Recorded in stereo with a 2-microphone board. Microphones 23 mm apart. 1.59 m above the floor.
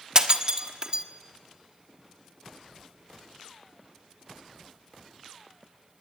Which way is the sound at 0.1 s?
30° right (ahead or behind).